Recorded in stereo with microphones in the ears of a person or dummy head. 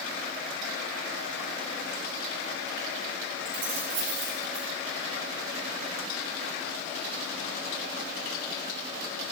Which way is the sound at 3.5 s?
65° right (ahead or behind).